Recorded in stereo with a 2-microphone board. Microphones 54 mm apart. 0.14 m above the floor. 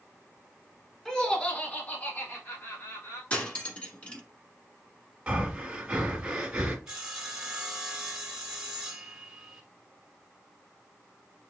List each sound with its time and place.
1.1 s laughter: 10° left (ahead or behind), 1.1 m; by 3.2 s 40° left (ahead or behind), 1.9 m
3.3 s cutlery clinking: 25° left (ahead or behind), 1.0 m
5.3 s breathing: 20° right (ahead or behind), 1.1 m
6.9 s sawing: 15° right (ahead or behind), 1.0 m